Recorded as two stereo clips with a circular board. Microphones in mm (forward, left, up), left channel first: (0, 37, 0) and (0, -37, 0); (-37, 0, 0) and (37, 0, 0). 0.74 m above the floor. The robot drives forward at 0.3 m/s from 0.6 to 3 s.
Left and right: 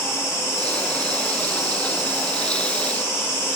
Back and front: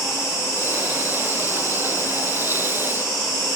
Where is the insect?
135° left, 4 m; by 3.6 s 140° left, 4.5 m.